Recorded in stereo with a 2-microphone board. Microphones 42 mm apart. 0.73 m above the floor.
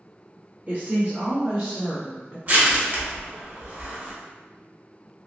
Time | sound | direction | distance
0.7 | a woman speaking | 35° right (ahead or behind) | 1.1 m
2.5 | crushing | 50° right (ahead or behind) | 1.5 m